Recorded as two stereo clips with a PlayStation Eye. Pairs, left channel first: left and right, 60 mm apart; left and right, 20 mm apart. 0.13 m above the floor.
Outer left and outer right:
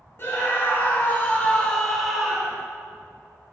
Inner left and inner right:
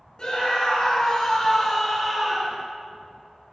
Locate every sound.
0.2 s a scream: 40° left (ahead or behind), 2 m; by 2.6 s 20° right (ahead or behind), 1.1 m